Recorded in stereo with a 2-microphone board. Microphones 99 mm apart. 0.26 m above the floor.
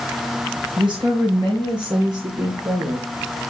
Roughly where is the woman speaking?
Right.